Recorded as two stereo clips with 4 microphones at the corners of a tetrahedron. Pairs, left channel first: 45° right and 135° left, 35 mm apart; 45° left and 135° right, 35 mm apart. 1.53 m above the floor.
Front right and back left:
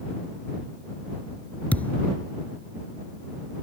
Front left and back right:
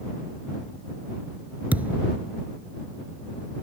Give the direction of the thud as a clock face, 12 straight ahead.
3 o'clock.